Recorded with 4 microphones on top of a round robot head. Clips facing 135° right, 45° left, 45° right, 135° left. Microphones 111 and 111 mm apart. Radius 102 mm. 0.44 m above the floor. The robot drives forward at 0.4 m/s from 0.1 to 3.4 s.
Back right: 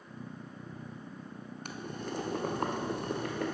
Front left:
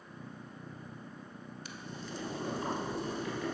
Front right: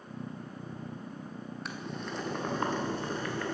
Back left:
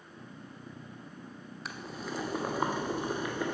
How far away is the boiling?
About 1.6 m.